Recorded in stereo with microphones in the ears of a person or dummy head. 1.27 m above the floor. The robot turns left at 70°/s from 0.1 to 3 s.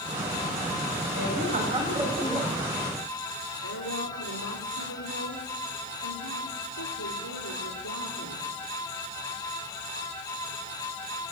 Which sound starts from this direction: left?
A woman speaking, at 3.6 s.